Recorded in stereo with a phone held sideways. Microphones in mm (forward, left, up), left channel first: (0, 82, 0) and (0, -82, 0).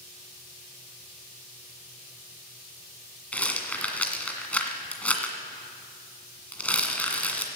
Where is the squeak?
I don't hear a squeak.